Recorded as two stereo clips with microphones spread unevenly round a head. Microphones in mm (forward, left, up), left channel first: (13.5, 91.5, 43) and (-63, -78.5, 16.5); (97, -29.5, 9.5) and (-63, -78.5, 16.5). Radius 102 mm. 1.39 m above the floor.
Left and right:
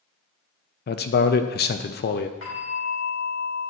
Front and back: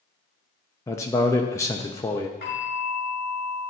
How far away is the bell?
About 3 m.